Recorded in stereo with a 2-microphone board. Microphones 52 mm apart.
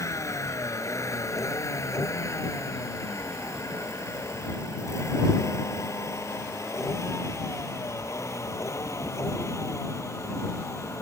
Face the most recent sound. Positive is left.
turn(degrees=70)  # may be behind; listen again after turning